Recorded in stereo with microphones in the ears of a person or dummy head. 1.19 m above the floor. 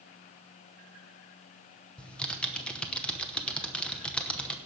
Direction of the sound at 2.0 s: 5° left (ahead or behind).